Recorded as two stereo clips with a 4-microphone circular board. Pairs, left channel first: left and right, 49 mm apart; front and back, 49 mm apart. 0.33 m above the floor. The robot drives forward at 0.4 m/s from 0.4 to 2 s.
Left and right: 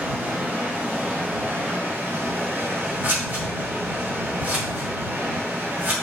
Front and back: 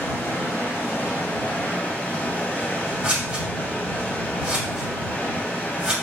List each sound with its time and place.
0.0 s running water: 35° right, 1.7 m; by 6.0 s 55° right, 1.3 m
3.0 s scissors: 120° right, 1.9 m